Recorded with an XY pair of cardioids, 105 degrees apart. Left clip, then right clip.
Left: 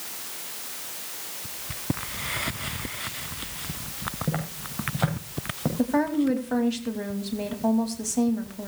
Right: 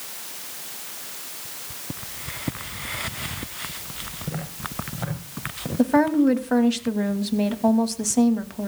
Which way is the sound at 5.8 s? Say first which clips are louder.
Right 6 dB; 35° right.